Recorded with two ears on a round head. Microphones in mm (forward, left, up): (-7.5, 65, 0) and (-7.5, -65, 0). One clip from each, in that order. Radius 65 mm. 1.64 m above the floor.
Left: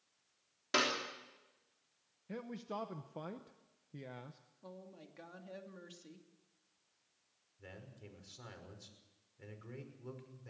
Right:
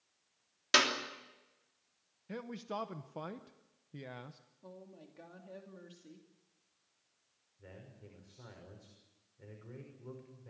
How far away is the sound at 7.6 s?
About 6 m.